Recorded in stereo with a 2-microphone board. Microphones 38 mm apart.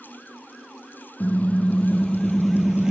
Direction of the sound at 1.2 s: 40° left (ahead or behind).